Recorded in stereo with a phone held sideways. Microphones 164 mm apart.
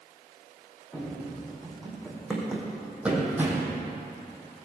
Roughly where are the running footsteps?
Centre.